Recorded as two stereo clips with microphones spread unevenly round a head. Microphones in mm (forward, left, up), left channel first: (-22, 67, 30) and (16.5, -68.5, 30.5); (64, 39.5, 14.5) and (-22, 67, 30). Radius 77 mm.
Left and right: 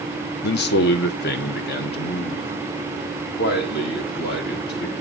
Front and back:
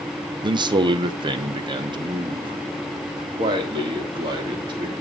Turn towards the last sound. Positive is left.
turn(degrees=125)